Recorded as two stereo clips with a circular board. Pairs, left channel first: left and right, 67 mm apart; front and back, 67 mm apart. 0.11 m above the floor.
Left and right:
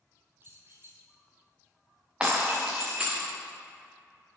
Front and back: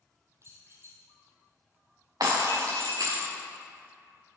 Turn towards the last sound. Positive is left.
turn(degrees=-165)